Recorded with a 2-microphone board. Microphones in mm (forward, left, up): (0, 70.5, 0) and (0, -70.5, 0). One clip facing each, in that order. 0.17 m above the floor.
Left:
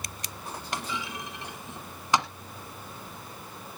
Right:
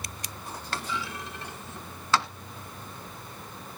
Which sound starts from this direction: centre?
A clunk, at 0.7 s.